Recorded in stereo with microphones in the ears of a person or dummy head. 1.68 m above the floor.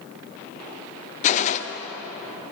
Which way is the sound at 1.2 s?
35° left (ahead or behind).